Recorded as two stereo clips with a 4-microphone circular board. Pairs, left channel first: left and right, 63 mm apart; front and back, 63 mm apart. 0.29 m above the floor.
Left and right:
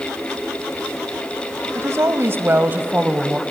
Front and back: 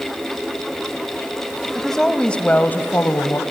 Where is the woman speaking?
90° right, 1.6 m; by 3.4 s 25° right, 1.5 m.